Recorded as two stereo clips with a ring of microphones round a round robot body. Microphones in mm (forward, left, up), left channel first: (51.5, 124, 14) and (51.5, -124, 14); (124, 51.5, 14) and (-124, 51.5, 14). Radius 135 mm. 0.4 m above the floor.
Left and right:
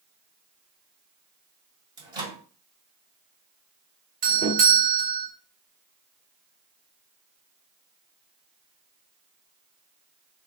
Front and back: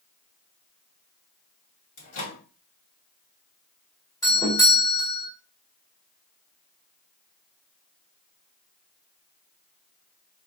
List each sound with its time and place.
2.0 s a microwave: 20° right, 2.5 m
4.2 s a doorbell: 70° right, 1.6 m